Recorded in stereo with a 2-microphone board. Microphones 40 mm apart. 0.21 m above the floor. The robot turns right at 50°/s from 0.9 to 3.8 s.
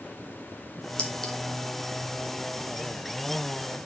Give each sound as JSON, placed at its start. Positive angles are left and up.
{"t": 1.0, "sound": "a clink", "side_deg": 20, "distance_m": 1.4}